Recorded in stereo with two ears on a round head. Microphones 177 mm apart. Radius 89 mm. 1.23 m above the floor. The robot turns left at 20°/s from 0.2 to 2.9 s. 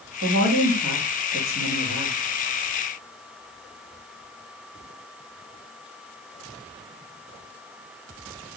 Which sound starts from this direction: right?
A woman speaking, at 0.2 s.